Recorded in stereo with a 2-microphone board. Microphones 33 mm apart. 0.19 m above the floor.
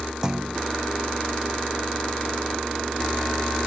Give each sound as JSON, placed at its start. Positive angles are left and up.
{"t": 0.2, "sound": "a clunk", "side_deg": -25}